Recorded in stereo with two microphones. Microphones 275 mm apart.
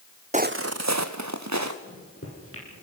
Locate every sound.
0.3 s footsteps: 25° right (ahead or behind), 0.7 m; by 1.7 s 85° right, 2 m
1.8 s a microwave: 50° left (ahead or behind), 6 m